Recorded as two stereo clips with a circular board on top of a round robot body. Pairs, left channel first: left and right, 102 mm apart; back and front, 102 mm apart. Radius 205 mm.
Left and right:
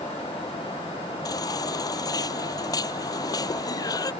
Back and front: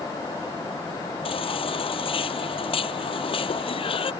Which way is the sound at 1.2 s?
145° left.